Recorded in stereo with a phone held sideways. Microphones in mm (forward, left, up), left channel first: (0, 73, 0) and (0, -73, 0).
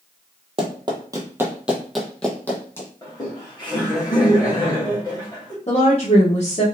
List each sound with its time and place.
0.6 s running footsteps: 40° right (ahead or behind), 1.2 m; by 2.9 s 20° left (ahead or behind), 1.6 m
3.0 s laughter: 25° left (ahead or behind), 1.9 m
5.7 s a woman speaking: 45° left (ahead or behind), 1.1 m